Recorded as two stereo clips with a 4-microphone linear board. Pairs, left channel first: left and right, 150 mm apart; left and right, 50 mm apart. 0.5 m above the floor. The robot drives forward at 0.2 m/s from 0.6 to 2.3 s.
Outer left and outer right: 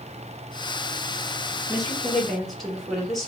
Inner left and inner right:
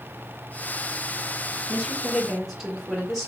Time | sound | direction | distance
1.7 | a woman speaking | centre (ahead or behind) | 1.3 m